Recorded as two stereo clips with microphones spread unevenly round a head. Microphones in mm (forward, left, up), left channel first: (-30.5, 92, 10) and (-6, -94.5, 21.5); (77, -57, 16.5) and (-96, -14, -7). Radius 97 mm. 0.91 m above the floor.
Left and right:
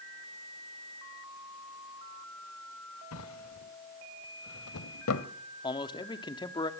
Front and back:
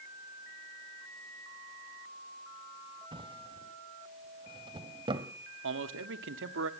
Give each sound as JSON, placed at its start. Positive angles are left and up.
{"t": 3.1, "sound": "a drawer", "azimuth_deg": 95, "distance_m": 1.4}
{"t": 5.6, "sound": "a man speaking", "azimuth_deg": 165, "distance_m": 1.8}